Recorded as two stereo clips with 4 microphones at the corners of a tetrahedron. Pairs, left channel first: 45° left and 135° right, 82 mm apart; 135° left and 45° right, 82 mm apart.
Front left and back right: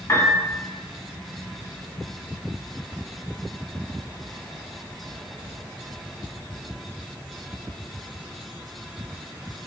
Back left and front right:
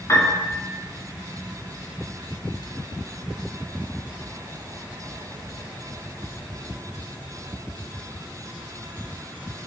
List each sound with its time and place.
0.1 s a piano: 100° left, 2 m